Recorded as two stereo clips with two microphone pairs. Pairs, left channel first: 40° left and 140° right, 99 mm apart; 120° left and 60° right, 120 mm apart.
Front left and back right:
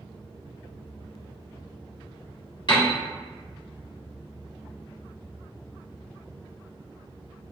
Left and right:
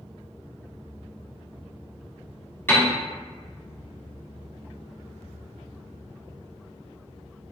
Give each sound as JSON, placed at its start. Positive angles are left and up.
{"t": 2.7, "sound": "a piano", "azimuth_deg": 55, "distance_m": 1.5}